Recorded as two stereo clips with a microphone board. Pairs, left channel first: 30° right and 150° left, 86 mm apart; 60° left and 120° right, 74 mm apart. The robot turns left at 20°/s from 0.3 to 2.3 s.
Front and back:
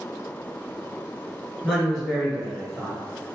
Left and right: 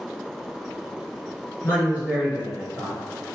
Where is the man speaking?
60° left, 1.6 m; by 3.0 s 50° left, 1.6 m.